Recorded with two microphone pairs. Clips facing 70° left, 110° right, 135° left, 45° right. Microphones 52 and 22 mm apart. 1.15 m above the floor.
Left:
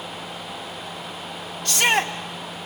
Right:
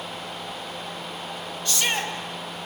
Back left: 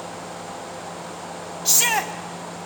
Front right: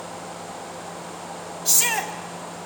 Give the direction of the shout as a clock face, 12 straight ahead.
9 o'clock.